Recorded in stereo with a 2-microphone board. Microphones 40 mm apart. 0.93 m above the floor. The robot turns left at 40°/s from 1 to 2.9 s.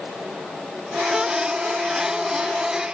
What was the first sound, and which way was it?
Only background noise.